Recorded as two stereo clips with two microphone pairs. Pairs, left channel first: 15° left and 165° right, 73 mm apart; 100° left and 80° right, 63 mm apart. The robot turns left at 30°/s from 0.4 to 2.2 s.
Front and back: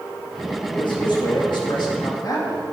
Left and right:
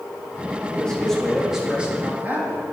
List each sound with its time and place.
0.7 s a man speaking: 30° left, 1.9 m; by 2.6 s 15° right, 1.9 m